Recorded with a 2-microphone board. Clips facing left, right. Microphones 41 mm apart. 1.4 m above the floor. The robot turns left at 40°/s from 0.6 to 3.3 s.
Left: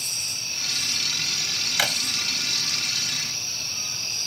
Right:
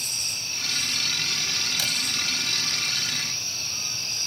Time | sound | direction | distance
1.8 | a drawer | 55° left (ahead or behind) | ?